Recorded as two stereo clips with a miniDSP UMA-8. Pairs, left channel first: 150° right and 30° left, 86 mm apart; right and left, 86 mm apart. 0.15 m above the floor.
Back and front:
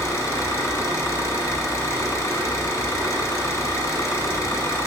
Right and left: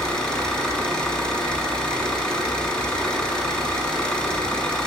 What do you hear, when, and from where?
0.0 s an engine running: 165° right, 1.0 m